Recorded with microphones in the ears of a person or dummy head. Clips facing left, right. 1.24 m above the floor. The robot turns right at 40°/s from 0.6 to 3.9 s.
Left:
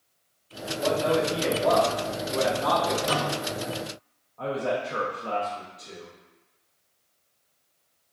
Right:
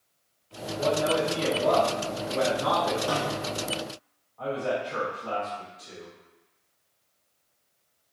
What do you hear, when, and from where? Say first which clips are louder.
0.8 s a man speaking: left 1 dB; 135° right, 1.3 m; by 3.0 s 45° right, 1.3 m
3.1 s a snare drum: left 1 dB; 35° left (ahead or behind), 0.6 m; by 3.6 s 45° left (ahead or behind), 0.6 m
4.4 s a man speaking: left 1 dB; 40° left (ahead or behind), 0.6 m